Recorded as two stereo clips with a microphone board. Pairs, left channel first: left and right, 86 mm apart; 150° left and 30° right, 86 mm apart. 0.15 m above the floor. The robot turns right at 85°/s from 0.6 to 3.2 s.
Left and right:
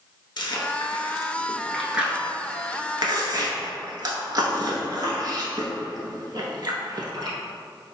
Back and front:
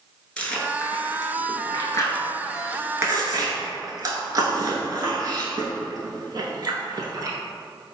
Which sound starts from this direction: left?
Chewing, at 0.4 s.